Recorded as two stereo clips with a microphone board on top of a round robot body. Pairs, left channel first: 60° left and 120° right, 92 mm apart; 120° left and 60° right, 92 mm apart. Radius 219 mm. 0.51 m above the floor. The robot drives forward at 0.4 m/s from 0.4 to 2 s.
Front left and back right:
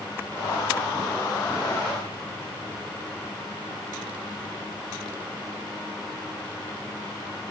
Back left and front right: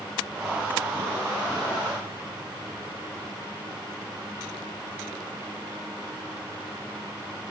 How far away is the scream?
I don't hear a scream.